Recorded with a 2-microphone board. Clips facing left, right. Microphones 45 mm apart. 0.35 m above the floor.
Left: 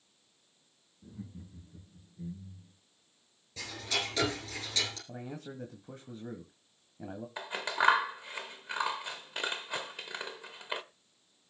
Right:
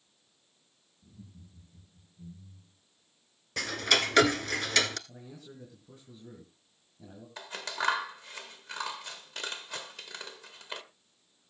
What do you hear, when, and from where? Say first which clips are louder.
1.0 s laughter: left 7 dB; 65° left (ahead or behind), 3.5 m; by 2.7 s 75° left (ahead or behind), 4.5 m
3.6 s ticking: right 8 dB; 75° right (ahead or behind), 1.2 m
5.1 s a man speaking: left 6 dB; 50° left (ahead or behind), 2.0 m
7.4 s scissors: left 4 dB; 15° left (ahead or behind), 1.3 m